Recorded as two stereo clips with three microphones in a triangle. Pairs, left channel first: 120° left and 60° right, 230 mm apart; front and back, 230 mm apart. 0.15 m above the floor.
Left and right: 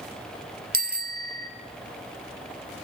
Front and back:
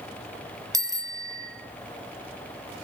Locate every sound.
0.7 s a bicycle bell: 105° right, 2 m